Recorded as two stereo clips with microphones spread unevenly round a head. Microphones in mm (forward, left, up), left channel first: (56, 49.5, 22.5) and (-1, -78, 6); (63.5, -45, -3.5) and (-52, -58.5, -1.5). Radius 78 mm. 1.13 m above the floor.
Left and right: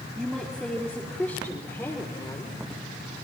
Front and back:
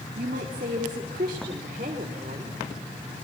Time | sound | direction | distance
0.1 | a woman speaking | 155° left | 2.5 m